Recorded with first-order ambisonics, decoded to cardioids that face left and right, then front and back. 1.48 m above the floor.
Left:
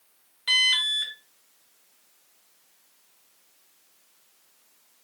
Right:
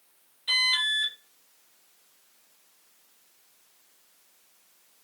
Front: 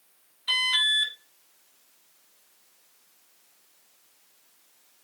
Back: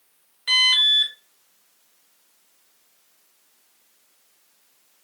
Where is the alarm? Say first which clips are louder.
Left 3 dB, back 6 dB; 140° left, 1.9 m.